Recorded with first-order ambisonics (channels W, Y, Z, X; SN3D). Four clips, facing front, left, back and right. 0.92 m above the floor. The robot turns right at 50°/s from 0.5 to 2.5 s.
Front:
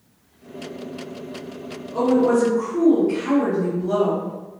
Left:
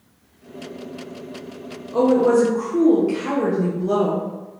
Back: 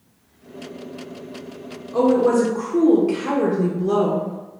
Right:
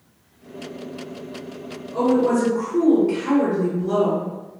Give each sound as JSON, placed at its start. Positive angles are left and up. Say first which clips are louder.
{"t": 1.9, "sound": "a woman speaking", "louder": "left 3 dB, back 1 dB", "azimuth_deg": 120, "distance_m": 0.6}